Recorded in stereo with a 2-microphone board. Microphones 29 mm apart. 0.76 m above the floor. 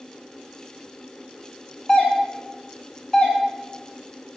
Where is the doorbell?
10° left (ahead or behind), 0.9 m.